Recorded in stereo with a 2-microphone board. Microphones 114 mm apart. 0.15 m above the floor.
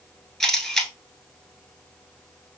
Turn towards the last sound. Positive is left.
turn(degrees=5)  # may be behind; listen again after turning